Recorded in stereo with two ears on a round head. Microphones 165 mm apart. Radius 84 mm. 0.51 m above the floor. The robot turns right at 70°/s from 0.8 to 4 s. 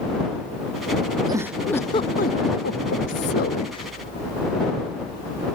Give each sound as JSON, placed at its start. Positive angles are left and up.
{"t": 1.3, "sound": "a giggle", "azimuth_deg": -25}